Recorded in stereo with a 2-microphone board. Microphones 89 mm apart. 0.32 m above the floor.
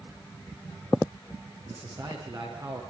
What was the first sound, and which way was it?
A man speaking, 55° right (ahead or behind).